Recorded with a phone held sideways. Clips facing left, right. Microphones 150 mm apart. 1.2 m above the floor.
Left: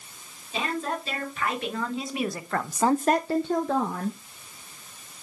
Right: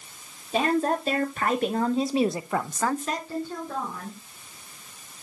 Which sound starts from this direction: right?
A woman speaking, at 0.5 s.